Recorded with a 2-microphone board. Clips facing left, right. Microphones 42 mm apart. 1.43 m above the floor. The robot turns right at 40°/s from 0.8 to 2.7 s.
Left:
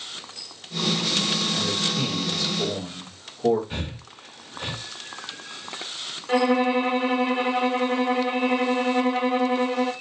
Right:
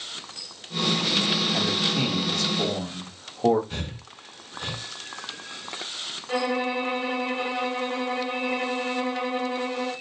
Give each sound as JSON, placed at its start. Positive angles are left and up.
{"t": 1.5, "sound": "a man speaking", "azimuth_deg": -90, "distance_m": 1.9}
{"t": 3.7, "sound": "breathing", "side_deg": 20, "distance_m": 1.3}
{"t": 6.3, "sound": "a violin", "side_deg": 45, "distance_m": 1.0}